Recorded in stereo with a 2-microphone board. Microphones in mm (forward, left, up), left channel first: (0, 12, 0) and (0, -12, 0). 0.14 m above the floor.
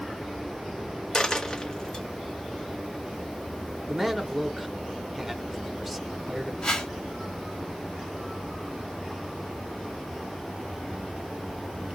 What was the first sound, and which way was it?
A dropped coin, 25° left (ahead or behind).